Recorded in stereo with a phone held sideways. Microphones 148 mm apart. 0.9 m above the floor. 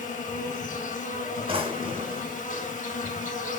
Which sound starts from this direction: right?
A drawer, at 1.5 s.